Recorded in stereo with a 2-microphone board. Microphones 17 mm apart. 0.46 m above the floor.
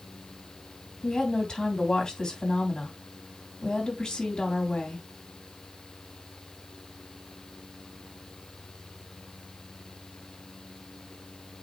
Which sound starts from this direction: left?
A woman speaking, at 1.0 s.